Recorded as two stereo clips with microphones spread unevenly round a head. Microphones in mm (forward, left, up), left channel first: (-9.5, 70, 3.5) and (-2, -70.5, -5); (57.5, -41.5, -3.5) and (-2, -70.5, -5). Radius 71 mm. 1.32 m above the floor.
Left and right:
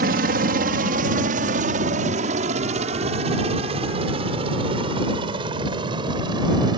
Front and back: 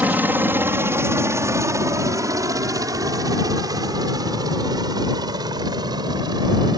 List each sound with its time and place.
0.0 s a helicopter: 95° right; by 6.8 s 150° right